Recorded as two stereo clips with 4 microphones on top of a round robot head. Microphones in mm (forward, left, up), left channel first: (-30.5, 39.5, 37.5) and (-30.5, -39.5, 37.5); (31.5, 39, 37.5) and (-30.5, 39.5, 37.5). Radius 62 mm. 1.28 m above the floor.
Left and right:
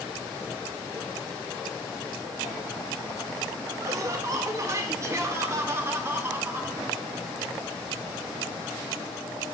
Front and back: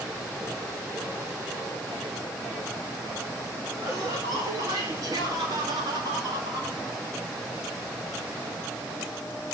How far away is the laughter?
About 5 m.